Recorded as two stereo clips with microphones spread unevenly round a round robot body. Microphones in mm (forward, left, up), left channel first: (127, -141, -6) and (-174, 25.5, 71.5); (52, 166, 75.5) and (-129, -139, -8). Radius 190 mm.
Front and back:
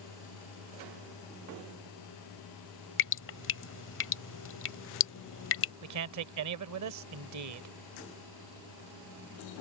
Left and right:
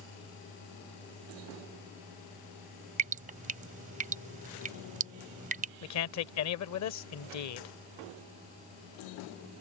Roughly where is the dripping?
Ahead right.